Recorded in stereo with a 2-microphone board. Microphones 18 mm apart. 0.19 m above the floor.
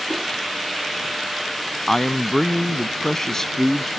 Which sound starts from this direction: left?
A man speaking, at 1.9 s.